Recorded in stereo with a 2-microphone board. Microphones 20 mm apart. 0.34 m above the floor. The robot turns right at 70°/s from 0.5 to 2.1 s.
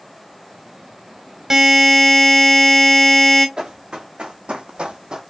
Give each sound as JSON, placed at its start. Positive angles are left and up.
{"t": 1.5, "sound": "a buzzer", "azimuth_deg": -30, "distance_m": 1.0}
{"t": 3.6, "sound": "running footsteps", "side_deg": -60, "distance_m": 2.5}